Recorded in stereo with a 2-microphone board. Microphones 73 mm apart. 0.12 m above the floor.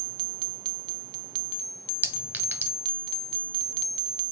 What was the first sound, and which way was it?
A clink, 20° right (ahead or behind).